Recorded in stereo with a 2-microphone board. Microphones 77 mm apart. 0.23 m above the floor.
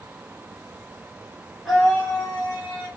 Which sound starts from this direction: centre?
A scream, at 1.6 s.